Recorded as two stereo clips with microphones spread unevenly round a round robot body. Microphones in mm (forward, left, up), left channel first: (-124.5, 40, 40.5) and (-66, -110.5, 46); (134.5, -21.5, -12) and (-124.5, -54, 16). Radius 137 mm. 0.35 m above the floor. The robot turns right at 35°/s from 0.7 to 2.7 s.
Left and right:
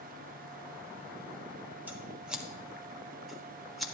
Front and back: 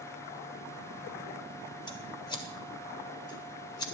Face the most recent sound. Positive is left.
turn(degrees=25)